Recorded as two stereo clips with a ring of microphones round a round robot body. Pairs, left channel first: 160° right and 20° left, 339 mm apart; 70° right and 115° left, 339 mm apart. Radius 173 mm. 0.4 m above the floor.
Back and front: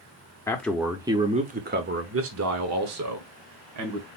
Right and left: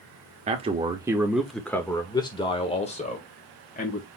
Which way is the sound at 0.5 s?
135° left.